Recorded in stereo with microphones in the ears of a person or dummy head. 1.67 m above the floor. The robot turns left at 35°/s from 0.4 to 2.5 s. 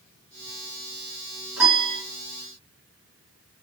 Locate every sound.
1.6 s a piano: 10° right (ahead or behind), 1.8 m; by 2.0 s centre (ahead or behind), 1.8 m